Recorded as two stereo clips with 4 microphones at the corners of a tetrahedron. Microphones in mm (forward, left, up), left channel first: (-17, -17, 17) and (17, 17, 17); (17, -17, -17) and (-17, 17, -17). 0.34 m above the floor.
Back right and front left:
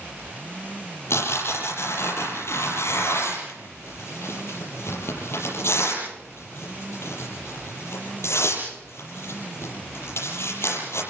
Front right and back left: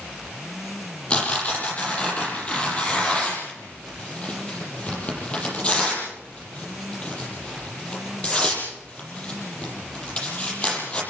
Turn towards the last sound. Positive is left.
turn(degrees=-115)